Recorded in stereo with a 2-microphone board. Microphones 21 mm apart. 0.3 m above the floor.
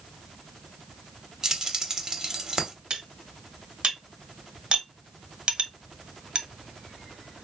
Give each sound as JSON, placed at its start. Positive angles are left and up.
{"t": 1.4, "sound": "keys jangling", "side_deg": -30, "distance_m": 0.9}
{"t": 2.9, "sound": "cutlery clinking", "side_deg": -50, "distance_m": 0.8}